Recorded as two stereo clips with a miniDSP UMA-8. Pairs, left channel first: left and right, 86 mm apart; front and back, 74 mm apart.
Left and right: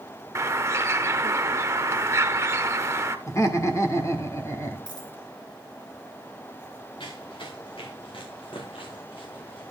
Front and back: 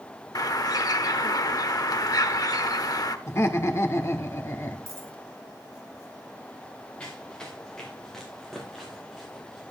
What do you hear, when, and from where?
0.3 s a bird: 35° right, 0.8 m
3.3 s laughter: 45° left, 1.6 m
4.9 s a dropped coin: 125° left, 4 m
7.0 s running footsteps: 75° left, 3 m; by 9.7 s 90° left, 7 m